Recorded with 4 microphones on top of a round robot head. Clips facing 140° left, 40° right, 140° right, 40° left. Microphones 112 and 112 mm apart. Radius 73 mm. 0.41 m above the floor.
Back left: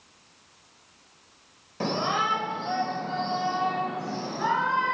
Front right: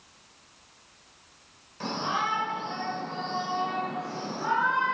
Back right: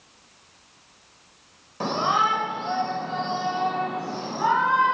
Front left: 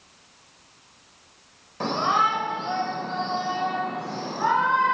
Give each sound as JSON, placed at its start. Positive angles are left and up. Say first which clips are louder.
{"t": 1.8, "sound": "a shout", "louder": "back left 3 dB, even", "azimuth_deg": 135, "distance_m": 2.0}